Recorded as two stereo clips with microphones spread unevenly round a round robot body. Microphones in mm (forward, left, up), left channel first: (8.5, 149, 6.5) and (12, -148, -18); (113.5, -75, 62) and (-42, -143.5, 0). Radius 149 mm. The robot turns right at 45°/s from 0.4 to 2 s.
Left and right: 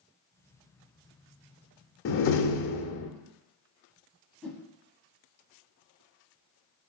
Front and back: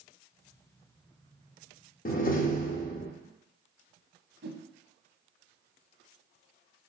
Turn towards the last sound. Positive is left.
turn(degrees=180)